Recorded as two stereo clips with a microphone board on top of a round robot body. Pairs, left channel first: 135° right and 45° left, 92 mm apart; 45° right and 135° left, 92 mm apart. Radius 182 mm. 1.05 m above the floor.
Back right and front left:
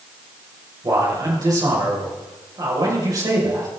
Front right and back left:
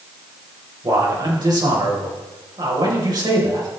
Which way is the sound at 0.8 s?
95° left.